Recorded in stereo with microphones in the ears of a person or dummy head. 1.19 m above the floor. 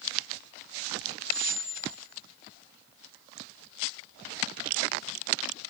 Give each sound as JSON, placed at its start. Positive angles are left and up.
{"t": 1.2, "sound": "a squeak", "side_deg": -35, "distance_m": 10.0}